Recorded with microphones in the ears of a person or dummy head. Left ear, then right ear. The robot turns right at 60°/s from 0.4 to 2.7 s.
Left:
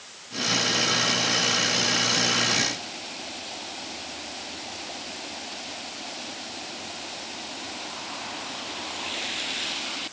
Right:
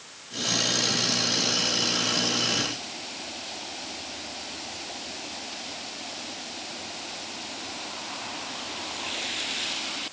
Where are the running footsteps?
I don't hear running footsteps.